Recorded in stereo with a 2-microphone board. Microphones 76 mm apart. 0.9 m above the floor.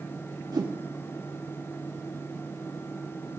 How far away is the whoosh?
About 1.5 m.